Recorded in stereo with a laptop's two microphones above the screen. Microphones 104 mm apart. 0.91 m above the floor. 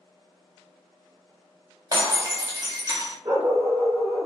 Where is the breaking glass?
40° right (ahead or behind), 0.7 m.